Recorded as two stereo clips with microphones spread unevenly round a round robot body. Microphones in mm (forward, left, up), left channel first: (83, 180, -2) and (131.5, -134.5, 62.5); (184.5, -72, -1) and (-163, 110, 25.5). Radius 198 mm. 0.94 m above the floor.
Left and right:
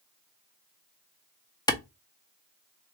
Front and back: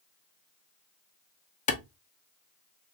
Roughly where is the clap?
Ahead left.